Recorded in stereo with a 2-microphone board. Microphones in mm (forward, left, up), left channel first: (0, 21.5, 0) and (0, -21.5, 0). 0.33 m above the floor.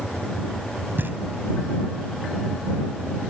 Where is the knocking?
55° right (ahead or behind).